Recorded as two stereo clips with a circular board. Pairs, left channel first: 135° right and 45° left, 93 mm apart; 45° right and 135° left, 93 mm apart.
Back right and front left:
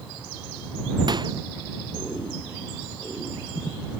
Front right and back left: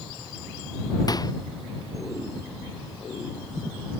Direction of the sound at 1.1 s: 5° left.